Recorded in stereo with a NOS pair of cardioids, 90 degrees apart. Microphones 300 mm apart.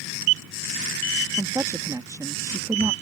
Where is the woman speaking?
10° right.